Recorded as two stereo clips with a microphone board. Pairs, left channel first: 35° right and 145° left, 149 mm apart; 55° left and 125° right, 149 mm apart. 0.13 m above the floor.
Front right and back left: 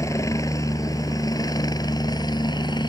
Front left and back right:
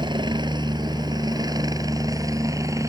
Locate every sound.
0.0 s a helicopter: 90° right; by 2.9 s 70° right